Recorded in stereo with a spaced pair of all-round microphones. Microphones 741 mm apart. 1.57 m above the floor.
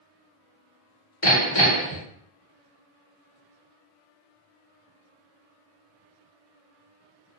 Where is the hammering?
25° left (ahead or behind), 1.3 m.